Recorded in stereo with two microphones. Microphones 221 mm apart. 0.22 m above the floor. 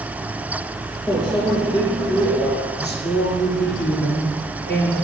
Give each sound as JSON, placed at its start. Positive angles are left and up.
{"t": 1.1, "sound": "a microwave", "side_deg": 20, "distance_m": 3.0}
{"t": 2.8, "sound": "a woman speaking", "side_deg": 50, "distance_m": 3.5}